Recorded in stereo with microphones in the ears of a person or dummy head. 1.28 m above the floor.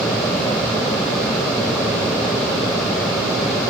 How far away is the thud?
I don't hear a thud.